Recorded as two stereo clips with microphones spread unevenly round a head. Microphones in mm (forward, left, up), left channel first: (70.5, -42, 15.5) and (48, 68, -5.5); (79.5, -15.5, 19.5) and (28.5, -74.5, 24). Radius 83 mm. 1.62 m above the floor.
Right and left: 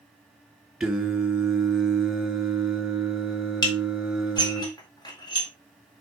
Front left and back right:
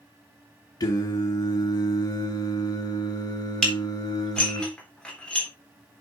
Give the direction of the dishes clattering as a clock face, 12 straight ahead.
1 o'clock.